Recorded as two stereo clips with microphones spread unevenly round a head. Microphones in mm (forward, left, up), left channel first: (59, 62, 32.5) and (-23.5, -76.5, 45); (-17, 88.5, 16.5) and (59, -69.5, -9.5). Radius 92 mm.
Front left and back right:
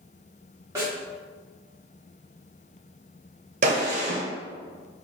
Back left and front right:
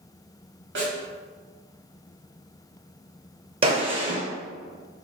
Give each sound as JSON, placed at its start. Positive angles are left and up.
{"t": 0.8, "sound": "a snare drum", "azimuth_deg": -55, "distance_m": 1.7}
{"t": 3.6, "sound": "a gunshot", "azimuth_deg": -120, "distance_m": 0.8}